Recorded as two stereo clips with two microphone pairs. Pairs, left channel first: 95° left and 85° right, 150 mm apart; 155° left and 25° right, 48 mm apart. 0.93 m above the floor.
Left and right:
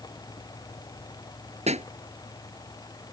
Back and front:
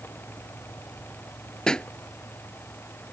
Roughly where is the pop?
Behind right.